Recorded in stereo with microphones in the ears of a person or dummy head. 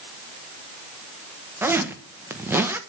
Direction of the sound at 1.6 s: 10° right (ahead or behind).